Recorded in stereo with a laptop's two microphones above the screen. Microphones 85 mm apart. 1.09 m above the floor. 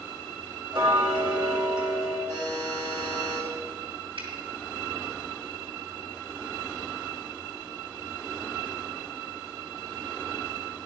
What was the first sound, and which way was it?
Ticking, 55° right (ahead or behind).